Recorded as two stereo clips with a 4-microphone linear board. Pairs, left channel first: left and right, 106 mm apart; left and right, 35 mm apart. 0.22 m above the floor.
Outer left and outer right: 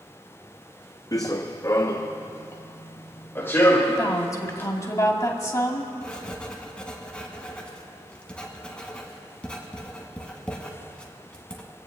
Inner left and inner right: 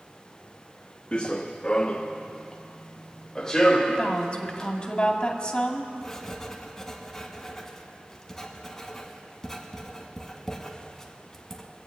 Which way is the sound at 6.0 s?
10° left (ahead or behind).